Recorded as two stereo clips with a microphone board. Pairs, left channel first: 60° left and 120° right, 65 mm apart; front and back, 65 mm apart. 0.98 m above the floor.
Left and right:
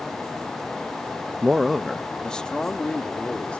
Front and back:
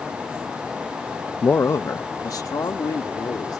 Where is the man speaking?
60° right; by 3.6 s 10° right.